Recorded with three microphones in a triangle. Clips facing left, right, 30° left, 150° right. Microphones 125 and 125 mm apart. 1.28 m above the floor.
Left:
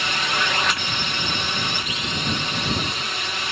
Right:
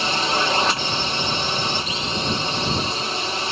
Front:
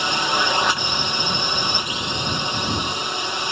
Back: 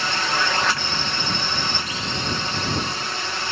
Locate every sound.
0.0 s a drone: 40° right